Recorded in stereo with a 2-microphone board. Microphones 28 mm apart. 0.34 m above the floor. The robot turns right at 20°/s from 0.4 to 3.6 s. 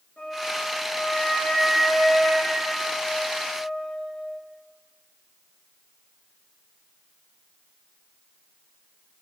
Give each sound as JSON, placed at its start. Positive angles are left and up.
{"t": 0.2, "sound": "a flute", "azimuth_deg": 105, "distance_m": 1.6}